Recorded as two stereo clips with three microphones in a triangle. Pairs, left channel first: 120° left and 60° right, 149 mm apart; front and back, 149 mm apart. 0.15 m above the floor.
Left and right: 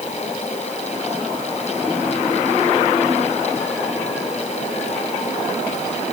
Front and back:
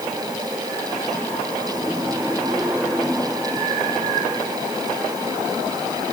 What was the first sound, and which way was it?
Only background noise.